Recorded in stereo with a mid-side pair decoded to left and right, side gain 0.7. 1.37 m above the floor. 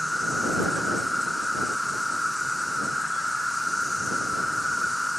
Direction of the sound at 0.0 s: Straight ahead.